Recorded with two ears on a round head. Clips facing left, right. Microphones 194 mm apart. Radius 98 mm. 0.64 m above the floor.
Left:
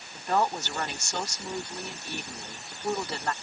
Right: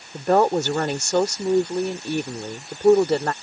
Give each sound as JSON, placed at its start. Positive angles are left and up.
{"t": 0.1, "sound": "a woman speaking", "side_deg": -45}